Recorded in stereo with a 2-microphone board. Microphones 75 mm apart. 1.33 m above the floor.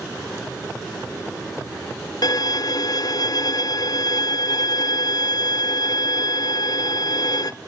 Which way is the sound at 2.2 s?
60° left (ahead or behind).